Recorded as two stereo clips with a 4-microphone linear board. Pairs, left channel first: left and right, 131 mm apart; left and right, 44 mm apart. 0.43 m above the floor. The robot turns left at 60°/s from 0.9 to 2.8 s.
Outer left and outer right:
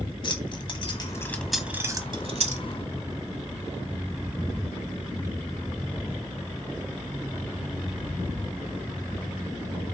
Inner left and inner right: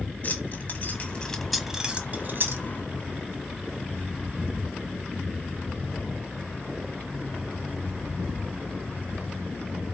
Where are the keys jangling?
35° left (ahead or behind), 1.6 m; by 2.6 s 65° right (ahead or behind), 1.6 m.